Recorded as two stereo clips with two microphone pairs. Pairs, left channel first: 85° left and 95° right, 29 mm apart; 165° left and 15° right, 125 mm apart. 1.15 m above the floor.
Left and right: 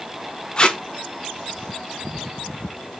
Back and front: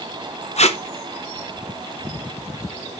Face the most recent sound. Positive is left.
turn(degrees=150)